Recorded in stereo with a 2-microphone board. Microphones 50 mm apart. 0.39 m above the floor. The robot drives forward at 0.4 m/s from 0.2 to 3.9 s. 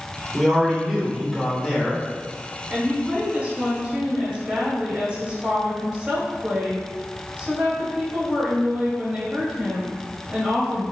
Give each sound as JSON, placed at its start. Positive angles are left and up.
{"t": 0.3, "sound": "a man speaking", "side_deg": -10, "distance_m": 0.9}
{"t": 2.7, "sound": "a woman speaking", "side_deg": -25, "distance_m": 1.0}